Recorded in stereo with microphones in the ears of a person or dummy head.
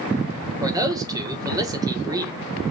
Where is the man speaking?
20° right (ahead or behind), 1.7 m.